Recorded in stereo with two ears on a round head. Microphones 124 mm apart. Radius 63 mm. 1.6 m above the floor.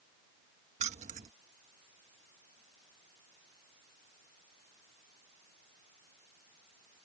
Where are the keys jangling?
55° right (ahead or behind).